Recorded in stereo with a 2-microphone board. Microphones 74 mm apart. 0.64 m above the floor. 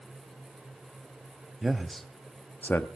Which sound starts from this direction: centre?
A man speaking, at 1.6 s.